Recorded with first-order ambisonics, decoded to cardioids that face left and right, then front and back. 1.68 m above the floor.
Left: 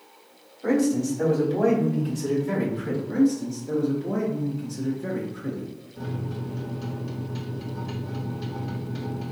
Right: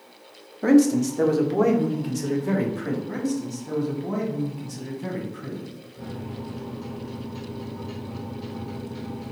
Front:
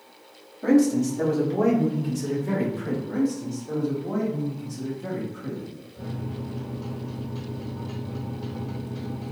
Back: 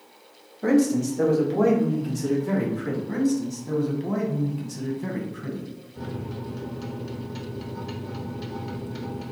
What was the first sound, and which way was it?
A man speaking, 105° right.